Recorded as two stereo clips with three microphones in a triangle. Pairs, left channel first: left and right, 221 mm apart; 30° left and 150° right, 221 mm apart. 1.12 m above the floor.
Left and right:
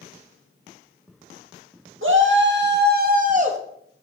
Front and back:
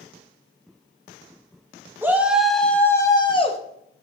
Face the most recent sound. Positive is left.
turn(degrees=-35)